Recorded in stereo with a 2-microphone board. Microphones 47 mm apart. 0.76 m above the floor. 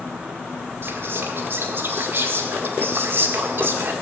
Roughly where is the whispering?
Right.